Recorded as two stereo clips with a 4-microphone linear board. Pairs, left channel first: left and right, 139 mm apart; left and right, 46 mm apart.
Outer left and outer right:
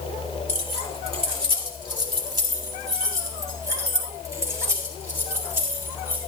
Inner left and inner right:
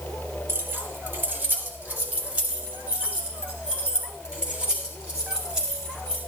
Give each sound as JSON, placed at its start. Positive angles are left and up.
{"t": 0.5, "sound": "keys jangling", "side_deg": -50, "distance_m": 2.0}